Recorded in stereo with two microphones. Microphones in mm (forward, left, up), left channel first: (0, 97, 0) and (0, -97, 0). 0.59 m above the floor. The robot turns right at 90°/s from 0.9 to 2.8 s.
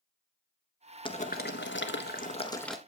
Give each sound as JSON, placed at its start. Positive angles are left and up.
{"t": 1.1, "sound": "boiling", "azimuth_deg": 25, "distance_m": 1.2}